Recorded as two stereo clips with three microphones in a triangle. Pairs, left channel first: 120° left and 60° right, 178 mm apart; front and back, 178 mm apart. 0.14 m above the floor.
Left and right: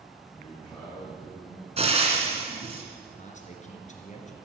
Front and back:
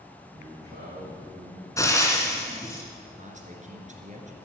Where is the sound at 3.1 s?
150° left, 2 m.